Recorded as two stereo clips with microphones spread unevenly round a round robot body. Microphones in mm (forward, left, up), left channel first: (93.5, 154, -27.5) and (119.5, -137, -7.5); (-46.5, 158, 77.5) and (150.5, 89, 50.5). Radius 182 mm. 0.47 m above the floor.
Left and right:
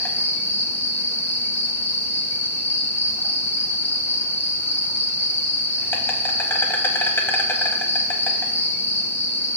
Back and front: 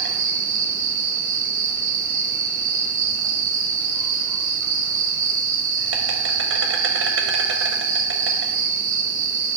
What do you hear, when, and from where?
0.0 s an insect: 10° left, 0.8 m